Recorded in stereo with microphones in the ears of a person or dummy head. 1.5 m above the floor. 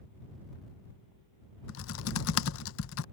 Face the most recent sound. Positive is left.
turn(degrees=80)